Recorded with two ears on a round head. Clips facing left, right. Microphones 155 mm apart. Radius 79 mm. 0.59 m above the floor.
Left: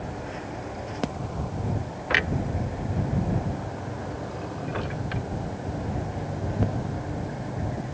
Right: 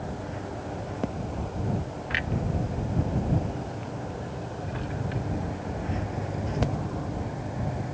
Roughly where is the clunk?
Left.